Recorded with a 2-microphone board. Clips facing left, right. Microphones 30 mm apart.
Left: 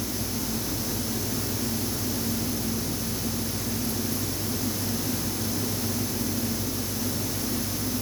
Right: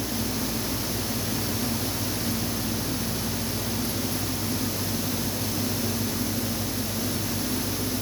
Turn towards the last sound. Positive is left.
No sound to turn to.